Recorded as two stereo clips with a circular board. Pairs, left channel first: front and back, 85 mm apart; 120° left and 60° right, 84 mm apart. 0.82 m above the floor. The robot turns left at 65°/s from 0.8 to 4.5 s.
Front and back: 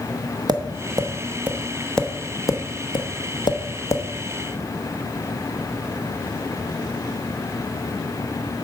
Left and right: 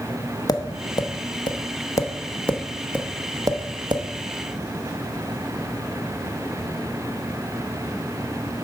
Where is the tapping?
155° left, 0.9 m; by 4.0 s 55° right, 0.9 m.